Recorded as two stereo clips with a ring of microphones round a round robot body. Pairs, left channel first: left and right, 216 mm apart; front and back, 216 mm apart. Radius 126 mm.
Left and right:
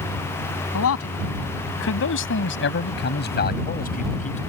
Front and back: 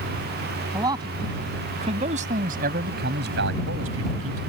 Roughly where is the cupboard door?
I don't hear a cupboard door.